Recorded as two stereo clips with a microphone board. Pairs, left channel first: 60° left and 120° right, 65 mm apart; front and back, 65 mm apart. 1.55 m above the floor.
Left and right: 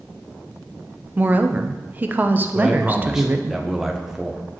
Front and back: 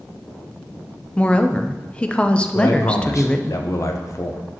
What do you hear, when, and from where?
1.2 s a woman speaking: 65° right, 0.5 m
2.5 s a man speaking: 35° right, 0.8 m